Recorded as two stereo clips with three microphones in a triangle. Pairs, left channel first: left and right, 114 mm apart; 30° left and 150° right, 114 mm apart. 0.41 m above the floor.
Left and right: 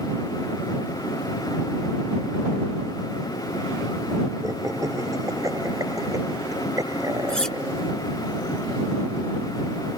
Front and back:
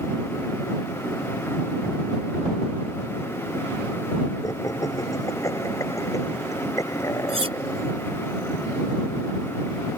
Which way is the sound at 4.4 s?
30° right.